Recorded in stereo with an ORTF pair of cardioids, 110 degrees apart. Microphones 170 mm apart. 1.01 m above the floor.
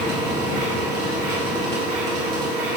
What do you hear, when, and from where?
0.0 s a machine running: 70° right, 2 m